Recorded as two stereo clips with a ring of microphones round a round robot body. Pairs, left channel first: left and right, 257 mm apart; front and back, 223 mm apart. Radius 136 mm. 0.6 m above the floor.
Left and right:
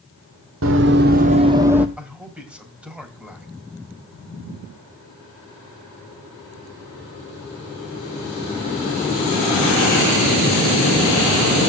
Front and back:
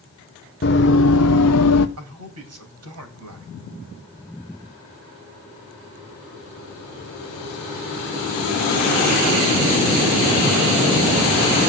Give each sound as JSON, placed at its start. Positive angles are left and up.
{"t": 0.6, "sound": "running footsteps", "azimuth_deg": -55, "distance_m": 1.3}
{"t": 2.0, "sound": "a man speaking", "azimuth_deg": -175, "distance_m": 4.0}